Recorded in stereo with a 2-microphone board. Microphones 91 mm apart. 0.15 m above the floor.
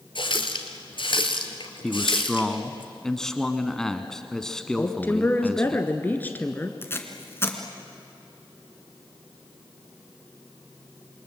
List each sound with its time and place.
0.1 s a running tap: 65° left (ahead or behind), 1.9 m
1.8 s a man speaking: 5° left (ahead or behind), 1.1 m
4.8 s a woman speaking: 20° left (ahead or behind), 1.7 m
6.8 s tape being pulled: 25° left (ahead or behind), 2 m